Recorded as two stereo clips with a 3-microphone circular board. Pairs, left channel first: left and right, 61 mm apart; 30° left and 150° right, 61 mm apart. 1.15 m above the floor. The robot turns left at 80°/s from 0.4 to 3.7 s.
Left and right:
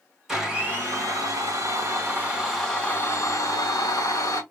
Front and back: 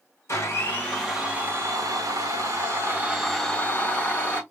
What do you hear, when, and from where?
0.3 s a blender: 5° right, 2.5 m; by 4.4 s 90° left, 2.5 m